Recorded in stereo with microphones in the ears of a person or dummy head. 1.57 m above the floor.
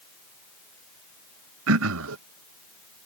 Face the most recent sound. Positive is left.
turn(degrees=-80)